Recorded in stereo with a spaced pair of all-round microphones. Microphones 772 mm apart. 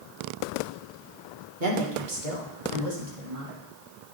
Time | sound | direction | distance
1.6 | a woman speaking | 85° right | 1.7 m